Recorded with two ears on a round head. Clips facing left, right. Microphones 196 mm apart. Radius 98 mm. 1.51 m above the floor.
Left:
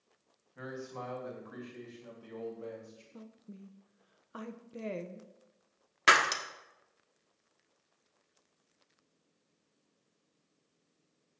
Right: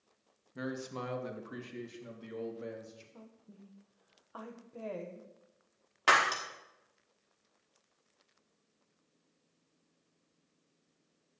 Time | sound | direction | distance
0.6 | a man speaking | 55° right (ahead or behind) | 1.6 m
3.1 | a woman speaking | 30° left (ahead or behind) | 0.9 m
6.1 | breaking glass | 30° left (ahead or behind) | 1.3 m